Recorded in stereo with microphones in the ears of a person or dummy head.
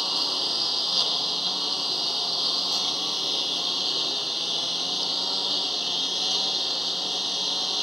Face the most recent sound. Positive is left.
turn(degrees=0)  # may be behind; listen again after turning